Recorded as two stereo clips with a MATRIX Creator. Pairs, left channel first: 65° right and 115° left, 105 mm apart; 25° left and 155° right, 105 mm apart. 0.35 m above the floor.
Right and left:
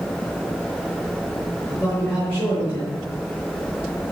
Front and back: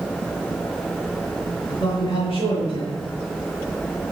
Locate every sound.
1.7 s a man speaking: 5° left, 4 m